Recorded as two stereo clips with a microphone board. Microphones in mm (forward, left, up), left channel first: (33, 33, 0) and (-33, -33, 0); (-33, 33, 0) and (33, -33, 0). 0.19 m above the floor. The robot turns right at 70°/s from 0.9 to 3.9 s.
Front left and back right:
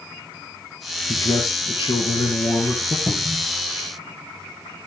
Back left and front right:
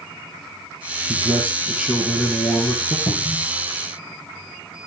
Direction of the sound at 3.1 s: 110° left.